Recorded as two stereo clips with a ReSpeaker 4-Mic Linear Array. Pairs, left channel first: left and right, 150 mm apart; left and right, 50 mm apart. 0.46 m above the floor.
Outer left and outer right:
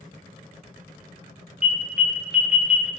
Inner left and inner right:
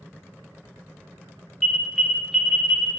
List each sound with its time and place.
1.6 s an alarm: 5° right (ahead or behind), 0.5 m